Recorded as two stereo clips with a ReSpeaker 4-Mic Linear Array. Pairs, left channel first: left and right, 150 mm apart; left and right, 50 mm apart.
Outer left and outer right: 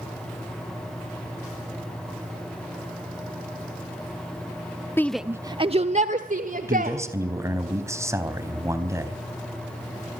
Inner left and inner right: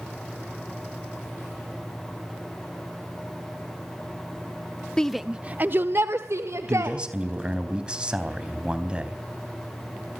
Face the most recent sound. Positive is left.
turn(degrees=-20)  # may be behind; listen again after turning